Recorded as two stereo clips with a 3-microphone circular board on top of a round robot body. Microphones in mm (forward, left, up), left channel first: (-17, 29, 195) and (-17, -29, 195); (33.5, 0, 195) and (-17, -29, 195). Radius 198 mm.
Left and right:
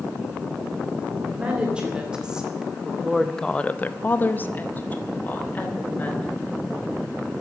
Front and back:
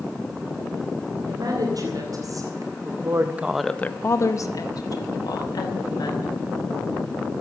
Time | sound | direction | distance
1.2 | a woman speaking | 165° right | 3.5 m